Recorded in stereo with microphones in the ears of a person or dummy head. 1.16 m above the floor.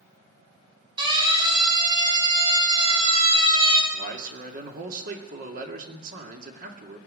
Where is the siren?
30° right (ahead or behind), 5.5 m; by 3.8 s 35° right (ahead or behind), 3.5 m.